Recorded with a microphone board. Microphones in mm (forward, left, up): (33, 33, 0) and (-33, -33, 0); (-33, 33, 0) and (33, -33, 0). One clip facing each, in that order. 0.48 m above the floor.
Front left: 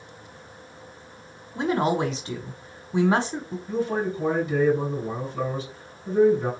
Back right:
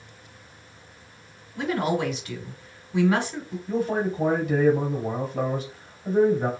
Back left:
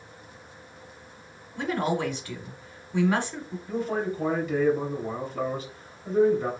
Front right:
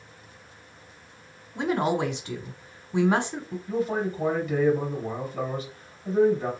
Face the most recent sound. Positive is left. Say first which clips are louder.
# back right 1 dB, front right 1 dB
turn(degrees=-130)